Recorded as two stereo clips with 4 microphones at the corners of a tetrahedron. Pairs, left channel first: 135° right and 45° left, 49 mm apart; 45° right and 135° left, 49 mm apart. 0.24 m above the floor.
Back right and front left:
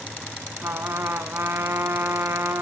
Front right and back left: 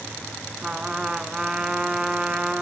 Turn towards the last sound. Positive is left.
turn(degrees=65)